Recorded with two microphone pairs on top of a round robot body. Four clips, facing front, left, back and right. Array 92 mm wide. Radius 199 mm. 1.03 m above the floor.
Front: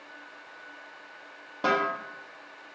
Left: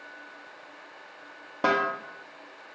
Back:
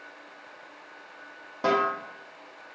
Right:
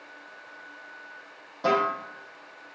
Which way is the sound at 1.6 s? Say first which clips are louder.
Right 1 dB, back 2 dB; 90° left.